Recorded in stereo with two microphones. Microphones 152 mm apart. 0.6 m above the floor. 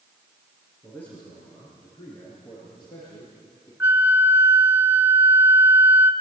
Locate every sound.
0.8 s a man speaking: 10° left (ahead or behind), 7 m; by 3.7 s 30° left (ahead or behind), 10 m
3.8 s a flute: 10° right (ahead or behind), 1.3 m